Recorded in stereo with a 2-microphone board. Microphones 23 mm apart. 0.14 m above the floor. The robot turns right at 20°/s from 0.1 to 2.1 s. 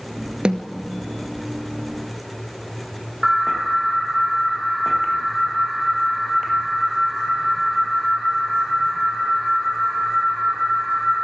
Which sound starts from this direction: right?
A snare drum, at 0.5 s.